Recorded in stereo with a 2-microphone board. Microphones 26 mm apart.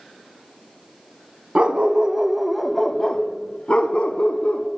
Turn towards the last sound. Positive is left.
turn(degrees=60)  # may be behind; listen again after turning